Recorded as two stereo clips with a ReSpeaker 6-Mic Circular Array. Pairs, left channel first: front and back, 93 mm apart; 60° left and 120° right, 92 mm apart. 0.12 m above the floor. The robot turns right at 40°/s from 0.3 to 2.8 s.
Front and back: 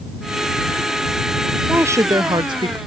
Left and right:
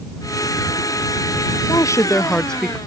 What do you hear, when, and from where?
1.7 s a woman speaking: 110° left; by 2.8 s 155° left